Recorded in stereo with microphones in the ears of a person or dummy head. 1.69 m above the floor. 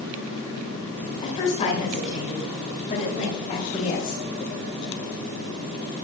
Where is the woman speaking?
30° left (ahead or behind), 8.5 m; by 4.2 s 35° left (ahead or behind), 12.5 m.